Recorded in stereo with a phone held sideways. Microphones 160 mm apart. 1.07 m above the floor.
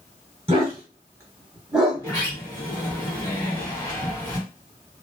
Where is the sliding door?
25° left (ahead or behind), 1.5 m.